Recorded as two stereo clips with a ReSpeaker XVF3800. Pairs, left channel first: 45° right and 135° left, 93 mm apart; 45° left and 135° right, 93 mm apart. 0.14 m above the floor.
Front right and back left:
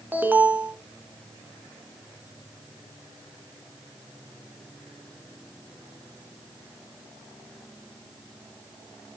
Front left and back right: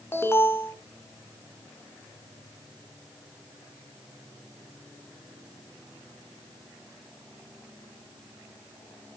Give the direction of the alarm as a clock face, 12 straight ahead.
9 o'clock.